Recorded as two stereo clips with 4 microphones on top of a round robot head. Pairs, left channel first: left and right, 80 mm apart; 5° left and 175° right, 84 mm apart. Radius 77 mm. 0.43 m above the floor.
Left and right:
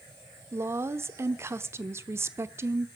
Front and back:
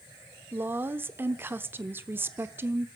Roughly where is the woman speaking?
Behind right.